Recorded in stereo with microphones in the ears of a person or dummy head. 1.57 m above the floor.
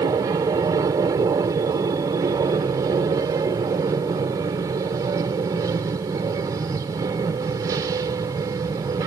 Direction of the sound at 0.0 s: 20° right (ahead or behind).